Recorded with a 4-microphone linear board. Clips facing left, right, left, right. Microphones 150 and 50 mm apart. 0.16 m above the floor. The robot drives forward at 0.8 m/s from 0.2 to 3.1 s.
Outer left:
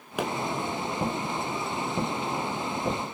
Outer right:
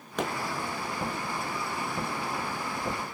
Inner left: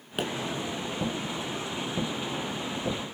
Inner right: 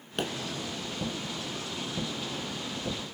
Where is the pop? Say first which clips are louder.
Outer left 1 dB, inner left 1 dB; 10° left (ahead or behind), 0.8 m.